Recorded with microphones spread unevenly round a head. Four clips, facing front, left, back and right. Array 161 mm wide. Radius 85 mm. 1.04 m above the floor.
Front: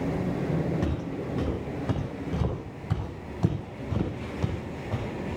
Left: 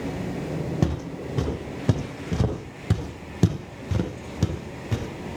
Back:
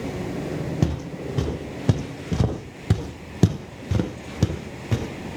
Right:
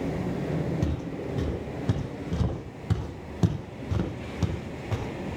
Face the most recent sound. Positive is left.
turn(degrees=175)